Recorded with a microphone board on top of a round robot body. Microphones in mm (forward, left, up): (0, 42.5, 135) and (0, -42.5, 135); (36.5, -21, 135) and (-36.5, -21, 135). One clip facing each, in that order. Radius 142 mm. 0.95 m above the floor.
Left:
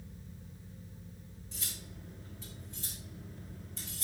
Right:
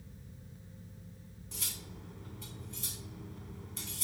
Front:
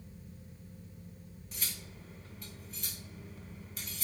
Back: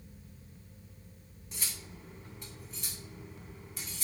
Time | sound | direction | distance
1.5 | cutlery clinking | 120° right | 2.5 m